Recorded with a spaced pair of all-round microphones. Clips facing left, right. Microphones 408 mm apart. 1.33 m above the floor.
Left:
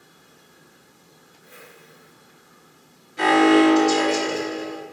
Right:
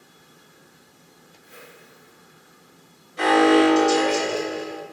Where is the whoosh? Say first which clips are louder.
Even; 65° left (ahead or behind), 1.2 m.